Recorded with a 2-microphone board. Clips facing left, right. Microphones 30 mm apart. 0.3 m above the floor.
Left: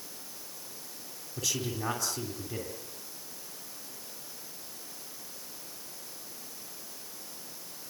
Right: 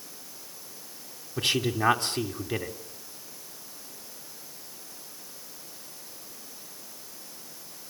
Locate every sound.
1.4 s a man speaking: 50° right (ahead or behind), 3 m